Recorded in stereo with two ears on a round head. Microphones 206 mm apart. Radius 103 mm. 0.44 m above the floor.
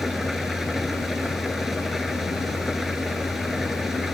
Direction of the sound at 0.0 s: Centre (ahead or behind).